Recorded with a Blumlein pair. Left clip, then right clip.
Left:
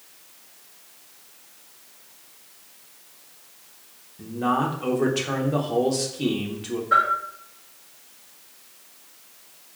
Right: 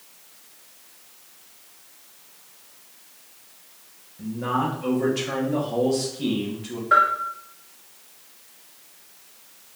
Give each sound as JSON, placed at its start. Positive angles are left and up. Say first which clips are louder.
{"t": 4.2, "sound": "a man speaking", "louder": "left 2 dB", "azimuth_deg": 15, "distance_m": 1.0}
{"t": 6.9, "sound": "a bell", "louder": "right 2 dB", "azimuth_deg": -25, "distance_m": 1.8}